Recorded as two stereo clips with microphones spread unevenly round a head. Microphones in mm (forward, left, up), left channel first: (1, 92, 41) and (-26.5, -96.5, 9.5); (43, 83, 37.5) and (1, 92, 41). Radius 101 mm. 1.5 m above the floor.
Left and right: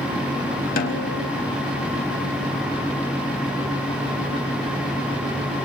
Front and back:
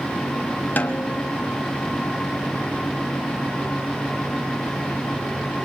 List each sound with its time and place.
0.8 s a snare drum: 35° left, 3.5 m